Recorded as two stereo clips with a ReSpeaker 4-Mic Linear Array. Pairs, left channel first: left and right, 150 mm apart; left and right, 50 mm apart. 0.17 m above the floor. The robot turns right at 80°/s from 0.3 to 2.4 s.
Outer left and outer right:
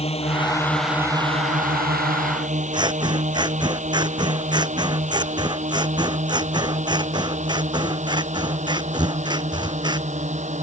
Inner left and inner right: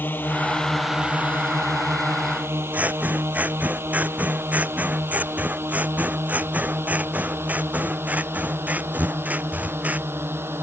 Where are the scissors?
30° right (ahead or behind).